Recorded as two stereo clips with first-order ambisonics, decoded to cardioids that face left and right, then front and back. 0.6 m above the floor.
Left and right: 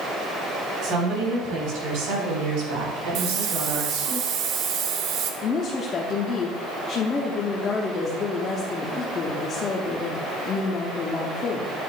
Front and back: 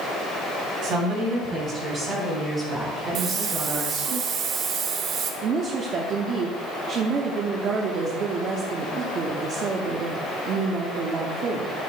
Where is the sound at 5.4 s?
140° left, 0.7 m.